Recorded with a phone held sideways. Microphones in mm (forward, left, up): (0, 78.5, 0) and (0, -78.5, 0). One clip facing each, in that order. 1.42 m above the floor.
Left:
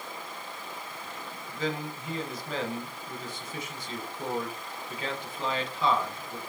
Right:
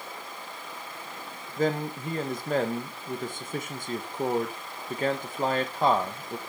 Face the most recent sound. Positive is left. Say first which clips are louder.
# right 6 dB
turn(degrees=-50)  # may be behind; listen again after turning